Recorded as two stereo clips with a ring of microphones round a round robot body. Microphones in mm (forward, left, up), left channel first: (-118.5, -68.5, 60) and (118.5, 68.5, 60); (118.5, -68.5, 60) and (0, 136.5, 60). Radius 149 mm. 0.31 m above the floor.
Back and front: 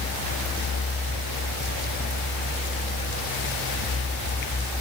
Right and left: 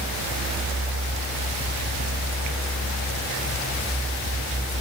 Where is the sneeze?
I don't hear a sneeze.